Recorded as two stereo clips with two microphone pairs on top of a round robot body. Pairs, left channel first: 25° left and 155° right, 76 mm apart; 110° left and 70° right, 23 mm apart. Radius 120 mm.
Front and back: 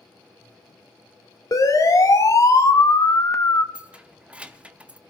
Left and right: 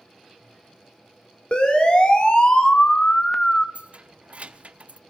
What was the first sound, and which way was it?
A siren, 70° left.